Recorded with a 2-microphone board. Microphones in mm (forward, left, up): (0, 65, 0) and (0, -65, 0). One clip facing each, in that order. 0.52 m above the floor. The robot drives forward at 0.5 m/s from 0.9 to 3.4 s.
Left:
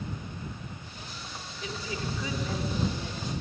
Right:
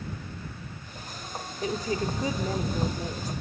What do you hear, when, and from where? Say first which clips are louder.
1.6 s a woman speaking: right 7 dB; 40° right (ahead or behind), 1.3 m; by 3.3 s 35° right (ahead or behind), 1.5 m